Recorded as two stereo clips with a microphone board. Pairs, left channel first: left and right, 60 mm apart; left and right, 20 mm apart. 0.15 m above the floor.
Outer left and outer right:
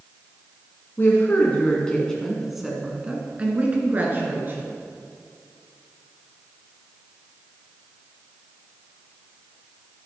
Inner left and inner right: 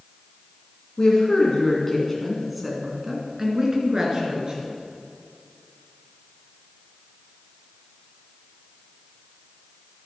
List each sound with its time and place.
1.0 s a woman speaking: 35° left (ahead or behind), 1.8 m; by 4.7 s 40° right (ahead or behind), 2.5 m